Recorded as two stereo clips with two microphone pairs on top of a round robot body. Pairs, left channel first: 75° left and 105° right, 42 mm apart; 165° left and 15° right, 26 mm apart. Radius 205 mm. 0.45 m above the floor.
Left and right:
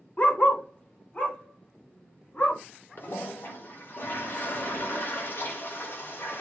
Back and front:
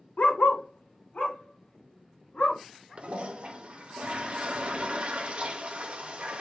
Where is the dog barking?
130° left, 0.5 m; by 2.6 s 125° left, 2.5 m.